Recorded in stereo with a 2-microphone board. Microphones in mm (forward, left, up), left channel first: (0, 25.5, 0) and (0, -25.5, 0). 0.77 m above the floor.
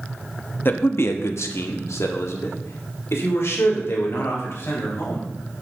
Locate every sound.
0.7 s a man speaking: 45° left (ahead or behind), 0.7 m; by 5.3 s 55° left (ahead or behind), 3.5 m